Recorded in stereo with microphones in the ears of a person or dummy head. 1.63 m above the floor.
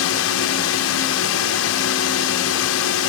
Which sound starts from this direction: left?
A drone, at 0.0 s.